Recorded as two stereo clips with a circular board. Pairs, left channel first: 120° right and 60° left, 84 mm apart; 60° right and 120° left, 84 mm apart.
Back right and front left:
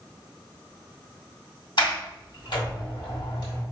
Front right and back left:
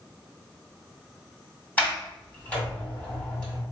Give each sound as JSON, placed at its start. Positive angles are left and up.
{"t": 1.8, "sound": "a sliding door", "azimuth_deg": -135, "distance_m": 1.9}